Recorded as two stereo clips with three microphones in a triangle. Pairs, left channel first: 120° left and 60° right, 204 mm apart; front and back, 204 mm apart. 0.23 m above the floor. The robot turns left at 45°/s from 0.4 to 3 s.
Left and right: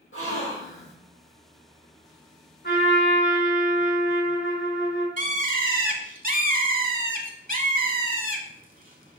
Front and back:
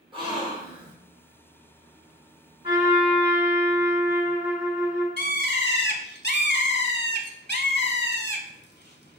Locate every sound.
0.1 s a gasp: 115° left, 2.5 m; by 0.9 s 90° left, 2.5 m
2.6 s a trumpet: 120° left, 3 m; by 5.1 s 105° left, 3 m
5.2 s a bird: 20° right, 0.8 m